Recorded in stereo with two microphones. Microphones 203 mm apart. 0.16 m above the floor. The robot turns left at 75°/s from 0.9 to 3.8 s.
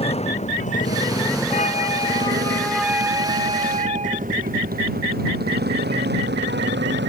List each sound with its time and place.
0.0 s a motorcycle: 30° left (ahead or behind); by 7.1 s 65° right (ahead or behind)
1.5 s a flute: 95° left; by 4.3 s 80° right